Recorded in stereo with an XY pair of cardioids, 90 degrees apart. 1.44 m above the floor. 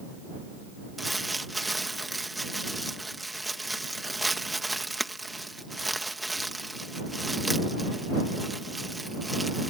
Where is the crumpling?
10° right.